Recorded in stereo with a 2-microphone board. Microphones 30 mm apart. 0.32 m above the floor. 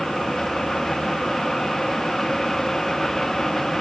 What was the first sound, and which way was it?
Only background noise.